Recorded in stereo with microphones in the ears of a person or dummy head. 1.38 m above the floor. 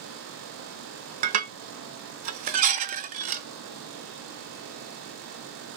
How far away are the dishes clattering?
About 0.6 m.